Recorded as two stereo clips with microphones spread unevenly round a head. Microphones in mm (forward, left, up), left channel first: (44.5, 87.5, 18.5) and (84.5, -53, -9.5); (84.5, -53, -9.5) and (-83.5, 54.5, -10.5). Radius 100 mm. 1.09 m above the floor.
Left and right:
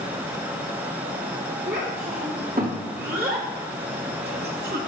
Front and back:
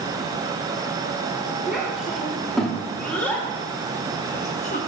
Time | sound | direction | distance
1.7 | a child speaking | 125° right | 2.5 m